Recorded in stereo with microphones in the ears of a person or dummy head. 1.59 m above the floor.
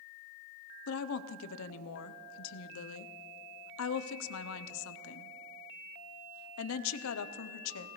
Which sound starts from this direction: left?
A woman speaking, at 0.9 s.